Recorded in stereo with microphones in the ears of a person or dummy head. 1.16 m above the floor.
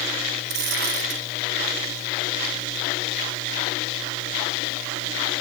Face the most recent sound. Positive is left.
turn(degrees=-60)  # may be behind; listen again after turning